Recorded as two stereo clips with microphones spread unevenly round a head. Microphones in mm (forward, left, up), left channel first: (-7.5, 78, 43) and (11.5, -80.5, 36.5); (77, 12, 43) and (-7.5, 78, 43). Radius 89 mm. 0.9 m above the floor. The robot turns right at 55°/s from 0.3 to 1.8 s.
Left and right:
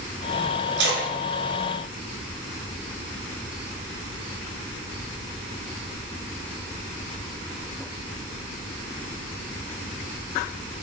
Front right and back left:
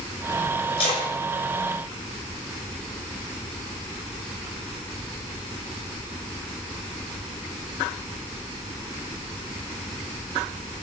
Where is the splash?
85° right, 5.5 m; by 2.9 s 25° right, 5.5 m.